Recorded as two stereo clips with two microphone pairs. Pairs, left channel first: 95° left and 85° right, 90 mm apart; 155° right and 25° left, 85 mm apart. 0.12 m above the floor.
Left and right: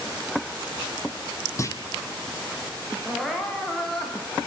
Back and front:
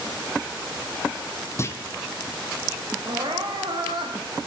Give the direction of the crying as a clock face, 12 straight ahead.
12 o'clock.